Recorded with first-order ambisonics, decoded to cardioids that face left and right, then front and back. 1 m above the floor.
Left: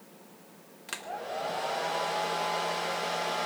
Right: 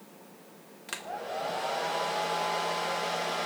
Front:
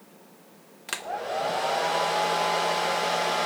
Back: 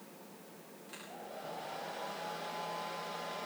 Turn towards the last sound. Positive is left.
turn(degrees=0)